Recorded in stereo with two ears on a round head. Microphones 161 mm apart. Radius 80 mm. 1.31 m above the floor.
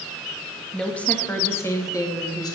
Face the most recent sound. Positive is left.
turn(degrees=25)  # may be behind; listen again after turning